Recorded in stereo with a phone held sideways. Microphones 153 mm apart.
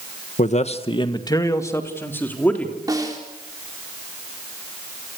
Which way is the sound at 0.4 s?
55° left (ahead or behind).